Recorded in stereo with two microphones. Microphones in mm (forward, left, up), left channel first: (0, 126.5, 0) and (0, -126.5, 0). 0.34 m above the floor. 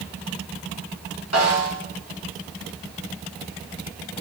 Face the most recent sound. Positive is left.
turn(degrees=85)